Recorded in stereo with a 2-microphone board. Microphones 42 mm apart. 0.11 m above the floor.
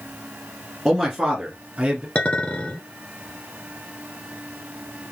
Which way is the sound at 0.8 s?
5° right (ahead or behind).